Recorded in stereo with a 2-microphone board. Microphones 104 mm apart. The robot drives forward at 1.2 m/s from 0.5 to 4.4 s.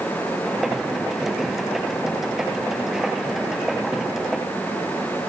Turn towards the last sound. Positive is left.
No sound to turn to.